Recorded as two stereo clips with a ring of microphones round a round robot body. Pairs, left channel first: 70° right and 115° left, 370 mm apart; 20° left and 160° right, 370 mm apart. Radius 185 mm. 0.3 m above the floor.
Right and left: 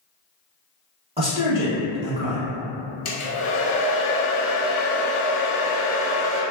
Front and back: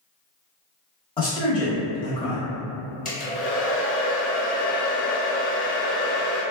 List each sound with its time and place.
1.2 s a man speaking: 70° left, 0.9 m
3.0 s a hair dryer: 40° right, 0.8 m